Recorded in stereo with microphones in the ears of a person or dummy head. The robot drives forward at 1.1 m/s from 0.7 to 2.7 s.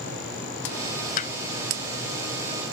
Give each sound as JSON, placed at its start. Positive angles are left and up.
{"t": 1.2, "sound": "hammering", "side_deg": 45}